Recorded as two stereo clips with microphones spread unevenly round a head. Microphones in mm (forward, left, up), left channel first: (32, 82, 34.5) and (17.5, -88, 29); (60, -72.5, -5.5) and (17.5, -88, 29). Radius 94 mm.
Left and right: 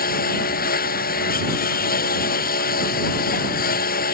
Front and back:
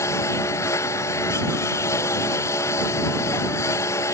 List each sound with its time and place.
0.0 s a lawn mower: 50° left